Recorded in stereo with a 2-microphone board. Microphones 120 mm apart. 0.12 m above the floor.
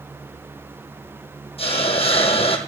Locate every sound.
1.6 s a hiss: 55° left (ahead or behind), 2.5 m